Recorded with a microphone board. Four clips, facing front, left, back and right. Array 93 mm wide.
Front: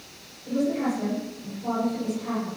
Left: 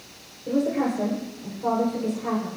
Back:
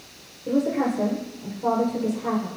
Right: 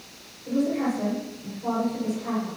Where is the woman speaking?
150° left, 8 m.